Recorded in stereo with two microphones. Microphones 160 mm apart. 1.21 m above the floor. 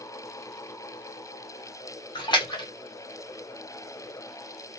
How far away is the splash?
About 1.5 m.